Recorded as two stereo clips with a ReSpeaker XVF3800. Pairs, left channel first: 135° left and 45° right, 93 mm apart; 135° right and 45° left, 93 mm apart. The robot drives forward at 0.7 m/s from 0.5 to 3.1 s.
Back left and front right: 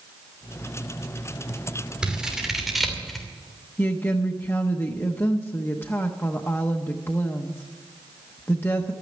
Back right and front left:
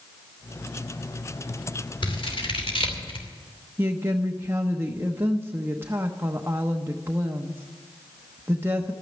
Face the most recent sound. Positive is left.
turn(degrees=90)